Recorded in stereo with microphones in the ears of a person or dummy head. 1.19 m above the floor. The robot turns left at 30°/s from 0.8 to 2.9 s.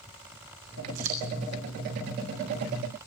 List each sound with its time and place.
0.9 s scissors: 70° right (ahead or behind), 7 m; by 1.3 s 60° right (ahead or behind), 7 m